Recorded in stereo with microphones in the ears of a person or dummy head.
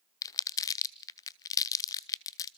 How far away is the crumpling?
About 0.6 m.